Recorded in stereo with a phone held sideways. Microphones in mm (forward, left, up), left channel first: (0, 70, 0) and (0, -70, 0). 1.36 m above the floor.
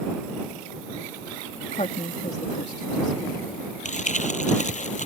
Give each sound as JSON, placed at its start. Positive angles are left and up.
{"t": 1.7, "sound": "a woman speaking", "side_deg": 50}
{"t": 3.9, "sound": "crumpling", "side_deg": 55}